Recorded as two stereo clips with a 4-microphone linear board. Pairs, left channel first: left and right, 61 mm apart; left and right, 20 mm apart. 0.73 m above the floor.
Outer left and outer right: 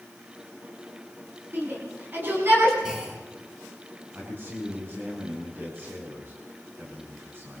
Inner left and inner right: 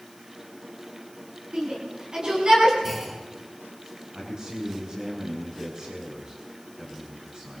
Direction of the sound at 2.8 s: 15° right (ahead or behind).